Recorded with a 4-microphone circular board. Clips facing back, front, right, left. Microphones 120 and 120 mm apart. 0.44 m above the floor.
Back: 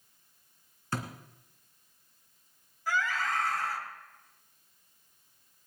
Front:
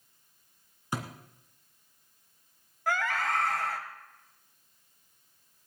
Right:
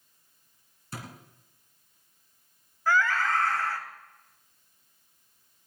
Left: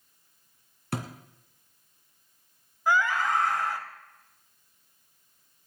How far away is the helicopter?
I don't hear a helicopter.